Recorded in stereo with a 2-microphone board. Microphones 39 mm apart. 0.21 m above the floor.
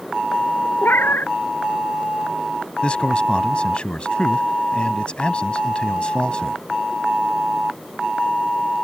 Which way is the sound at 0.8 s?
65° left (ahead or behind).